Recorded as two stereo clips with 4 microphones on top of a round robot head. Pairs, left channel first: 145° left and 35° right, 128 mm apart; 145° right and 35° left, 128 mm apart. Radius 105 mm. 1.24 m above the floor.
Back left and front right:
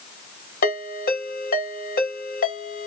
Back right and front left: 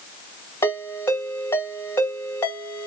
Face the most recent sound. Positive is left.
turn(degrees=140)